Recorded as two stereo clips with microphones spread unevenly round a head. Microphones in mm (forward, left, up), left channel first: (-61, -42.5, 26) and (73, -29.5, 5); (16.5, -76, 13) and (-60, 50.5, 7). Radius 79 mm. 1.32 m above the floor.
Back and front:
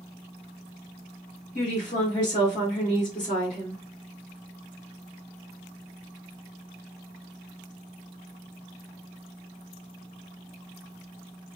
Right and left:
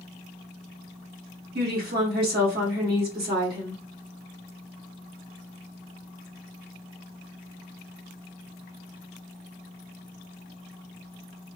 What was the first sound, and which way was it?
A woman speaking, 140° left.